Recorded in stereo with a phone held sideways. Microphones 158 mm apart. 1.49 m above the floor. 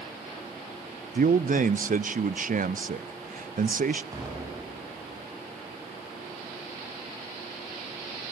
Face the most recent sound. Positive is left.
turn(degrees=-20)  # may be behind; listen again after turning